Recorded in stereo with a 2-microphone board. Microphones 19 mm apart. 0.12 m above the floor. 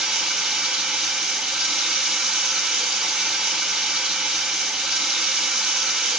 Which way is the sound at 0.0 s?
85° right.